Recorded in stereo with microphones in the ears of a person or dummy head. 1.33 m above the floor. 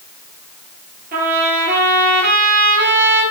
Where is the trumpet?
60° right (ahead or behind), 7 m.